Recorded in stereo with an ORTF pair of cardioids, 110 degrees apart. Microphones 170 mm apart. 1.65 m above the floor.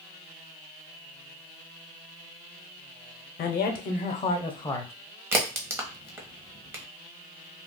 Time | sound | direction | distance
3.4 | a man speaking | 70° left | 1.0 m
5.3 | a crack | 15° right | 1.1 m